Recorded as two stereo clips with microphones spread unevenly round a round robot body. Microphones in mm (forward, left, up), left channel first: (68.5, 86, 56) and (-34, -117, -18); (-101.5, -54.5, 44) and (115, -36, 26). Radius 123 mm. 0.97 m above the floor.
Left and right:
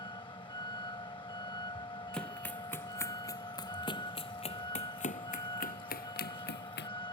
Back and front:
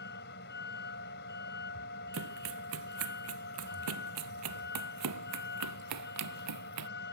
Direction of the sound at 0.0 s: 135° left.